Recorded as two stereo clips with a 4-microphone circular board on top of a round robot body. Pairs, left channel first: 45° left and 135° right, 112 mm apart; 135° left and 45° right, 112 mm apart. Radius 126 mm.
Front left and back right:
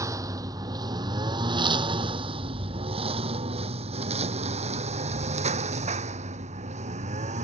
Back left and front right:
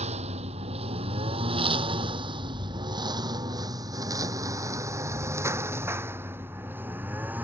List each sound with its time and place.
0.0 s a lawn mower: 70° right; by 7.4 s 120° right